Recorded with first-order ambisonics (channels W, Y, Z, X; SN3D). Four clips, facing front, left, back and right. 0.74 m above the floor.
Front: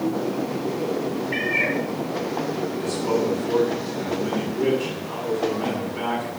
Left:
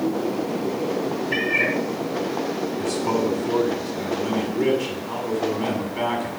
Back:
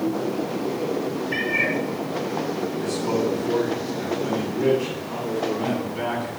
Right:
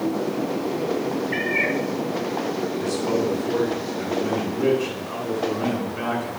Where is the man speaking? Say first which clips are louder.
Left 1 dB, front 1 dB; 100° left, 7 m.